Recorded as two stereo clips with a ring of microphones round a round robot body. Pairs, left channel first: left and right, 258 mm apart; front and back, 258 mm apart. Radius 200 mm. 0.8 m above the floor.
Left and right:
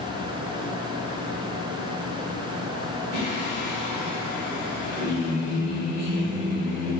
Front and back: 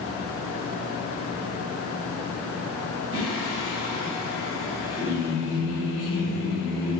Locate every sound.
3.1 s singing: 135° right, 1.9 m